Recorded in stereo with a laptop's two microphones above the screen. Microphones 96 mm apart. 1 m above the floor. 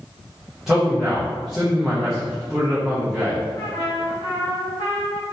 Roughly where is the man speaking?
Centre.